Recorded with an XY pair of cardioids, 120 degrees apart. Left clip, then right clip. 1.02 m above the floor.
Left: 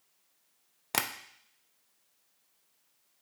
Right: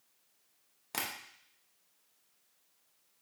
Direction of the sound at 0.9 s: 45° left.